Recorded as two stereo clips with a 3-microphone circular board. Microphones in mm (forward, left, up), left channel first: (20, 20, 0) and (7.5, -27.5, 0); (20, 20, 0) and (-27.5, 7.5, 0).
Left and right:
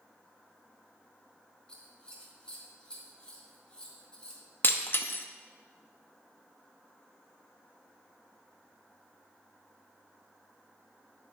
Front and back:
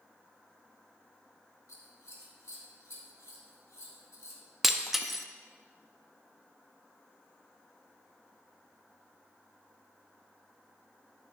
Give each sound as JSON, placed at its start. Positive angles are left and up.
{"t": 1.7, "sound": "scissors", "azimuth_deg": 5, "distance_m": 2.0}
{"t": 4.6, "sound": "breaking glass", "azimuth_deg": 110, "distance_m": 0.7}